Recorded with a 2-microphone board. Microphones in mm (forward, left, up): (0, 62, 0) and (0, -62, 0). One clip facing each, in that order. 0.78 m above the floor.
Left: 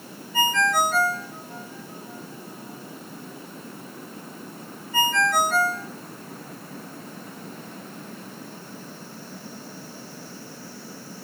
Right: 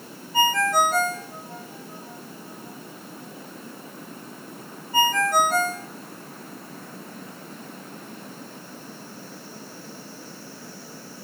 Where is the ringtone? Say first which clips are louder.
Right 2 dB; 35° right (ahead or behind), 0.9 m.